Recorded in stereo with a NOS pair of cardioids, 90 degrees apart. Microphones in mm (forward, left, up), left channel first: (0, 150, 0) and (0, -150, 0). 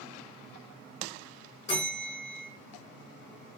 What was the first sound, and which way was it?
A bell, 35° left.